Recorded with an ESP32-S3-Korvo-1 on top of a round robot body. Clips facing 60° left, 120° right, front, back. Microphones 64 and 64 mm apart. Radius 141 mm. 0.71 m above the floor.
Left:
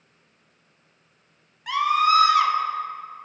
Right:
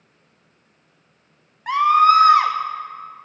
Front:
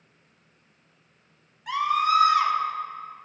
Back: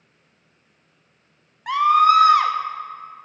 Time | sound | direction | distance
1.7 | a scream | 160° right | 1.5 m